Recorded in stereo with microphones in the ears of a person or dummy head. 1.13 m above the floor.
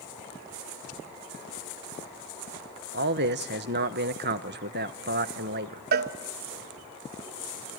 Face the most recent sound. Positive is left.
turn(degrees=-55)  # may be behind; listen again after turning